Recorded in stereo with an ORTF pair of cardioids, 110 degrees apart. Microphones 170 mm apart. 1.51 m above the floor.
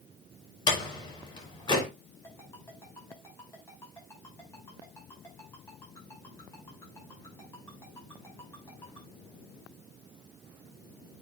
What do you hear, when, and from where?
0.7 s a door slam: 30° left, 4.5 m
2.2 s a ringtone: 15° left, 6 m